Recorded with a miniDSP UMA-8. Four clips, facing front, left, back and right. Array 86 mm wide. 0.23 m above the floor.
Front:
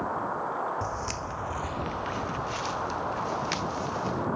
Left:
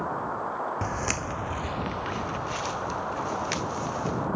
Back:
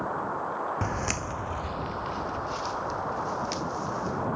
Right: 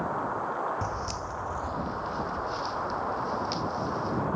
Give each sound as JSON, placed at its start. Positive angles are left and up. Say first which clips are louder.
{"t": 0.8, "sound": "footsteps", "louder": "left 3 dB, back 2 dB", "azimuth_deg": 150}